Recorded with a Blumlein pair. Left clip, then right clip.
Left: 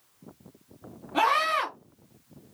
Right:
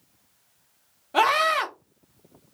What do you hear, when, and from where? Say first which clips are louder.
1.1 s a scream: right 3 dB; 35° right, 1.2 m